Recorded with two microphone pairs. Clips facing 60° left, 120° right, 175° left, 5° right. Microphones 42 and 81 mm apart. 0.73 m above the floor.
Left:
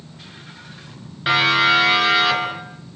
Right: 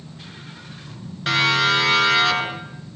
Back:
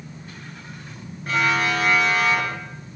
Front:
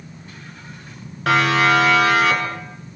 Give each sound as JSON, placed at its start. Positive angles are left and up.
{"t": 1.3, "sound": "a siren", "azimuth_deg": -15, "distance_m": 9.0}